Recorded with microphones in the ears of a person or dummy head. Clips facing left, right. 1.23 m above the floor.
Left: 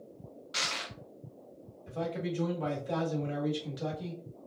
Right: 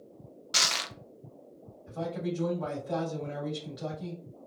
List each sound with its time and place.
0.5 s crushing: 60° right (ahead or behind), 0.6 m
1.9 s a man speaking: 40° left (ahead or behind), 1.7 m